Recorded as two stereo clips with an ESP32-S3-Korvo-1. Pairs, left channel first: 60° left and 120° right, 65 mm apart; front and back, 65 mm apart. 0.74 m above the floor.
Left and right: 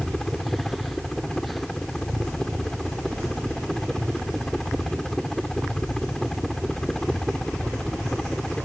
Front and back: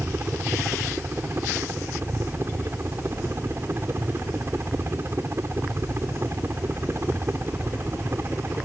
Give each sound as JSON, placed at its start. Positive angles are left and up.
{"t": 0.0, "sound": "a helicopter", "azimuth_deg": 140}